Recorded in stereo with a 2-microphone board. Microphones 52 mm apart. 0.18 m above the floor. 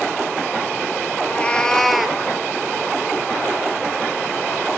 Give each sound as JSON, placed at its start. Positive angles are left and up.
{"t": 1.2, "sound": "a cat meowing", "side_deg": 30, "distance_m": 1.2}